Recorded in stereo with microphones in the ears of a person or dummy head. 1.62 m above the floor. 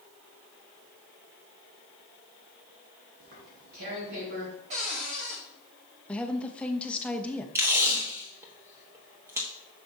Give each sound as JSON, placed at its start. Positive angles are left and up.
{"t": 3.2, "sound": "tearing paper", "side_deg": -55, "distance_m": 4.0}
{"t": 4.7, "sound": "a cupboard door", "side_deg": -35, "distance_m": 1.1}
{"t": 6.1, "sound": "a woman speaking", "side_deg": 5, "distance_m": 0.7}
{"t": 7.5, "sound": "tape being pulled", "side_deg": -15, "distance_m": 1.3}